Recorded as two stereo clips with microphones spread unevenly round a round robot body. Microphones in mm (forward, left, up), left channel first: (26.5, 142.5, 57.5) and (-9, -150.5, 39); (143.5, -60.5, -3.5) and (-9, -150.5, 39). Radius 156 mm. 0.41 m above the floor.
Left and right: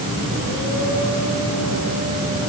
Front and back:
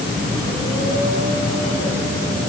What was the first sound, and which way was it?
Only background noise.